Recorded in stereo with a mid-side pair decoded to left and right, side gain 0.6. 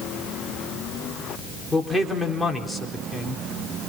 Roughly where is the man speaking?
Ahead.